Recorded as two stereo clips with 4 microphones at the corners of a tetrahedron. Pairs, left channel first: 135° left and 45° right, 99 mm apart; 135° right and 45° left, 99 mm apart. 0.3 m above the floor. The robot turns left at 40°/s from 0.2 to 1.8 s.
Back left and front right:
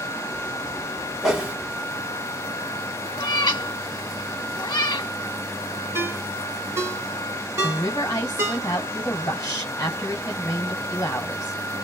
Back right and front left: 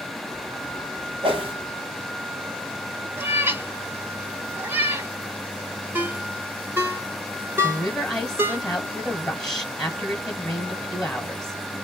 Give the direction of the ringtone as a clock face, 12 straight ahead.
12 o'clock.